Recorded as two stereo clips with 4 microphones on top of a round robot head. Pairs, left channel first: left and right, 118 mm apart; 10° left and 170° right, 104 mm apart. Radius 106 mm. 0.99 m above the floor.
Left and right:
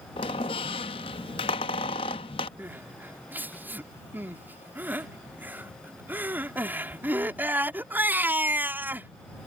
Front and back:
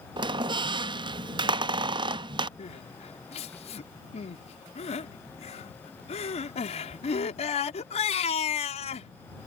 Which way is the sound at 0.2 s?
145° left.